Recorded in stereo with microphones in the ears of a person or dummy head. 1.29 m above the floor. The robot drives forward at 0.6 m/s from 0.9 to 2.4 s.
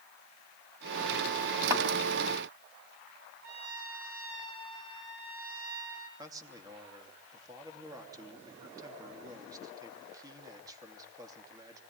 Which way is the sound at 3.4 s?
60° right (ahead or behind).